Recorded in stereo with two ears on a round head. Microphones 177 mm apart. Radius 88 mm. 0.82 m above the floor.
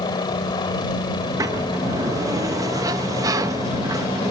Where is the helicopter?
20° left (ahead or behind); by 4.3 s 25° left (ahead or behind).